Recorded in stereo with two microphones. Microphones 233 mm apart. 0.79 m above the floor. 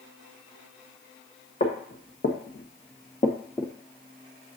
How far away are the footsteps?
About 2 m.